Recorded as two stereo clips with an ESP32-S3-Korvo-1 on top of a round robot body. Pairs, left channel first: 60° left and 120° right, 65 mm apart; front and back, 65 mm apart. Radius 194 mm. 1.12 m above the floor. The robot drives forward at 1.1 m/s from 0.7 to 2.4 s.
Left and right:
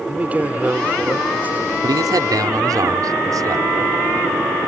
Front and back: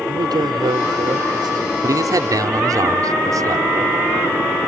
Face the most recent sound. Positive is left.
turn(degrees=-150)